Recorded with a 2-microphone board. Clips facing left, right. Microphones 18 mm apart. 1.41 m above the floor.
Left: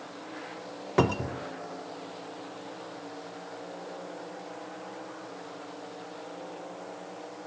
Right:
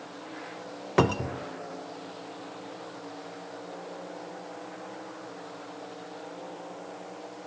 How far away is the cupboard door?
About 0.5 m.